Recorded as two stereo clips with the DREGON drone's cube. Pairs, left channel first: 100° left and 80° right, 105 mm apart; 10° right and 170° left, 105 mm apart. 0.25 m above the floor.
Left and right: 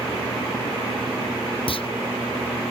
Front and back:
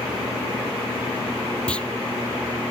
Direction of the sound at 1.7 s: 70° left.